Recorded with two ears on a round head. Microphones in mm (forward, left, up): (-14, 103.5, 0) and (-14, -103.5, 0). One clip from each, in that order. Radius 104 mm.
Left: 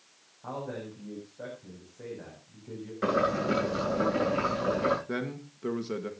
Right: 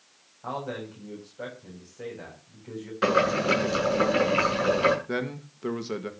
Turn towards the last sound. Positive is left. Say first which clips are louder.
# right 4 dB
turn(degrees=-15)  # may be behind; listen again after turning